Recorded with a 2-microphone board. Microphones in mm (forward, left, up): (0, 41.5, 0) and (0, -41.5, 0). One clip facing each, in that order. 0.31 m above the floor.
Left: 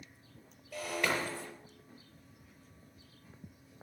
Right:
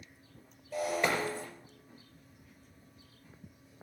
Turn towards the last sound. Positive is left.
turn(degrees=-25)  # may be behind; listen again after turning